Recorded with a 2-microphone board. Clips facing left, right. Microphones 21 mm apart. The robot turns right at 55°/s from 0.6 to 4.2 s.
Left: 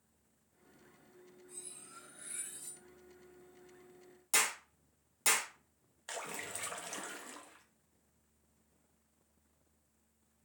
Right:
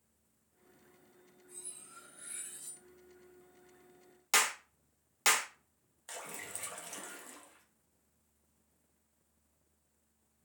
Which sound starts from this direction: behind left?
Cutlery clinking, at 1.5 s.